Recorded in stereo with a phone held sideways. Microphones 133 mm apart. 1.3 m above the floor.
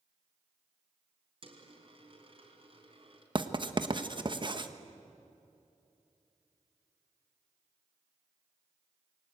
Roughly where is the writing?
Right.